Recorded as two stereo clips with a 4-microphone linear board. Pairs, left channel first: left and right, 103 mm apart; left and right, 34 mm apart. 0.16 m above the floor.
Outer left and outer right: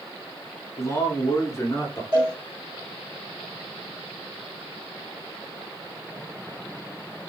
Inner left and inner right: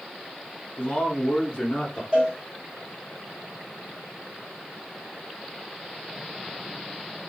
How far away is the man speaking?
About 1.2 m.